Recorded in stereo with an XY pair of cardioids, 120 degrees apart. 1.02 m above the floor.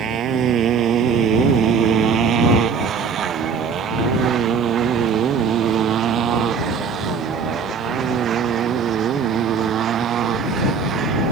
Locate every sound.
0.0 s a motorcycle: 60° right; by 11.3 s 55° right